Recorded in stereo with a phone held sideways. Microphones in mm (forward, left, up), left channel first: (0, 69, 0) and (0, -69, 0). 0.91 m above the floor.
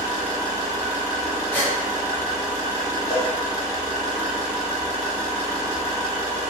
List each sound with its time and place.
0.0 s an engine running: 60° right (ahead or behind), 0.8 m
1.5 s a gasp: 15° left (ahead or behind), 0.7 m
3.1 s a cowbell: 25° left (ahead or behind), 1.0 m